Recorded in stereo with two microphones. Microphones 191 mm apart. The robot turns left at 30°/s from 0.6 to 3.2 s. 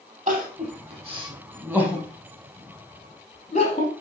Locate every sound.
0.3 s crying: 40° right (ahead or behind), 4 m; by 3.9 s 35° left (ahead or behind), 4 m